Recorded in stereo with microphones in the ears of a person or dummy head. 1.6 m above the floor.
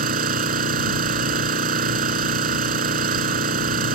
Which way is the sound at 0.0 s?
45° right (ahead or behind).